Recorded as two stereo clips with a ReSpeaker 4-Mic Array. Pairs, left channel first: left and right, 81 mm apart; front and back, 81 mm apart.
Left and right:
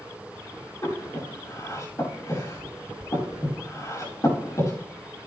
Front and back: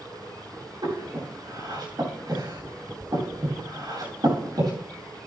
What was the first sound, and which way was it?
Breathing, 140° left.